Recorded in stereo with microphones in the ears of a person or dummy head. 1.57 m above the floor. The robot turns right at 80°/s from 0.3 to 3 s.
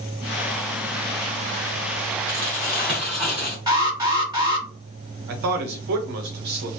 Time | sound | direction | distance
2.3 | crumpling | 20° left (ahead or behind) | 1.3 m
3.7 | an alarm | 20° right (ahead or behind) | 1.6 m
5.3 | a man speaking | 55° right (ahead or behind) | 0.8 m